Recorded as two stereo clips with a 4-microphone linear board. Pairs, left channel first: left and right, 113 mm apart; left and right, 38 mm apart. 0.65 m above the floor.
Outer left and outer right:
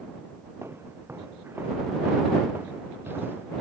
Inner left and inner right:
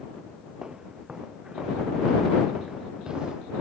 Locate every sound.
0.6 s footsteps: 20° right (ahead or behind)